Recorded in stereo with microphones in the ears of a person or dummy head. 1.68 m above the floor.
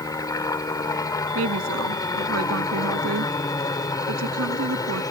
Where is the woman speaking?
90° right.